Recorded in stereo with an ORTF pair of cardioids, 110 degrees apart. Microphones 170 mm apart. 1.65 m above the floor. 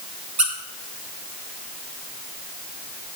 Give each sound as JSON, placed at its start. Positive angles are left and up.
{"t": 0.4, "sound": "a squeak", "azimuth_deg": -45, "distance_m": 3.0}